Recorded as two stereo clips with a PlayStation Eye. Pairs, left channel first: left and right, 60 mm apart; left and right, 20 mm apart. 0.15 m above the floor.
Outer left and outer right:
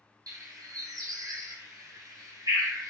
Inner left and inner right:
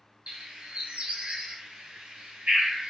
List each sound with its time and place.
0.3 s a bird: 80° right, 0.9 m